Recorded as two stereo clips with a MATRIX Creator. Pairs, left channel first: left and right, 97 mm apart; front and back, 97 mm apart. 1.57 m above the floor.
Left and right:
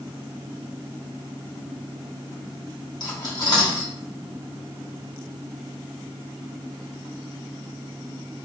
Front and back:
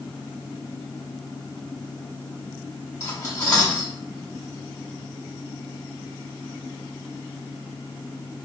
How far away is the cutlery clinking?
About 1.7 m.